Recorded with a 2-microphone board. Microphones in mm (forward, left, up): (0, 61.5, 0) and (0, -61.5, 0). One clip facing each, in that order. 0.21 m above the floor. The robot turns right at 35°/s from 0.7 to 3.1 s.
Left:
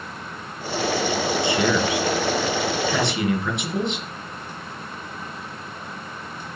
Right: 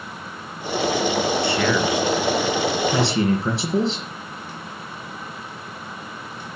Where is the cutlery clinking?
No cutlery clinking in this recording.